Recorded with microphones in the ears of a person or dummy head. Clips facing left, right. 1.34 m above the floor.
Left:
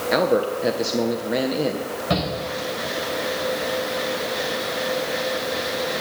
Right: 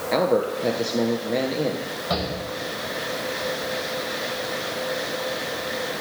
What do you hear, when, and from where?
0.1 s a man speaking: 5° left (ahead or behind), 1.0 m
2.1 s a shout: 40° left (ahead or behind), 6.5 m